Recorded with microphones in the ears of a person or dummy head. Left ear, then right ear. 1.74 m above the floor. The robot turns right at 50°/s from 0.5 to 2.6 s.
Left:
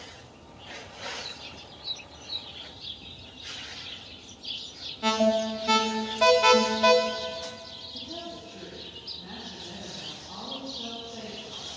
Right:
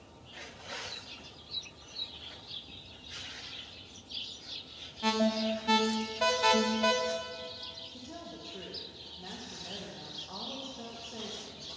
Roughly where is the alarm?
Centre.